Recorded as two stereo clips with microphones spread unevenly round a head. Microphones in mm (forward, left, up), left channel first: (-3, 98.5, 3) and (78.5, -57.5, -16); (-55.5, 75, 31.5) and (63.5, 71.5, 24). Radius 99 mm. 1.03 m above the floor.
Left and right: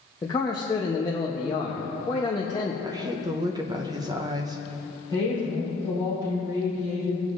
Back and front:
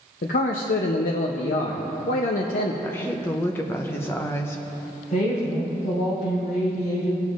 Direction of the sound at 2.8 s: 115° right.